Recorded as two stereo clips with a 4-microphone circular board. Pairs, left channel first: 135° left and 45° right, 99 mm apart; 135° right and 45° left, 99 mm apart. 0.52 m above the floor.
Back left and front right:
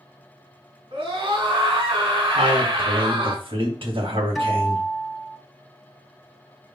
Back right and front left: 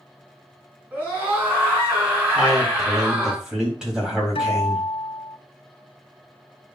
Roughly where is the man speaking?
Ahead right.